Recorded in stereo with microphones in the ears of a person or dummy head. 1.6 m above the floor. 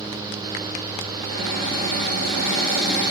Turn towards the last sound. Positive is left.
turn(degrees=-65)  # may be behind; listen again after turning